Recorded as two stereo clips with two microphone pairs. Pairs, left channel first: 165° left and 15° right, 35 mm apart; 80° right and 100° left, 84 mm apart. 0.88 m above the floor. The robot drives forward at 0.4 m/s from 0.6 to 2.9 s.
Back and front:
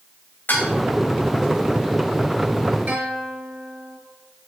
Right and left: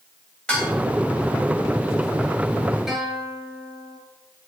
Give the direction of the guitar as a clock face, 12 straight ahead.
12 o'clock.